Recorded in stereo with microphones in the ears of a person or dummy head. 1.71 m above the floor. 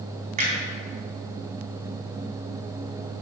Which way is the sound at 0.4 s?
45° right (ahead or behind).